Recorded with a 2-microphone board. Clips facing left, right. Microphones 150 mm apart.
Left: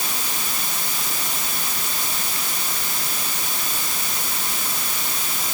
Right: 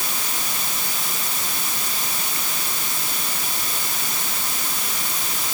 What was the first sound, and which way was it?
Only background noise.